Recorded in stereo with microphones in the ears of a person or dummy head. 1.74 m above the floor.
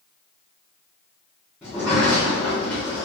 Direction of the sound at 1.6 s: 5° left (ahead or behind).